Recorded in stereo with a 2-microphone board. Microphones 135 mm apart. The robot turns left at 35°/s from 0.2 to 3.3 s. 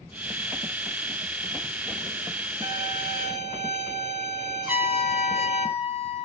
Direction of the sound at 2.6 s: 40° right (ahead or behind).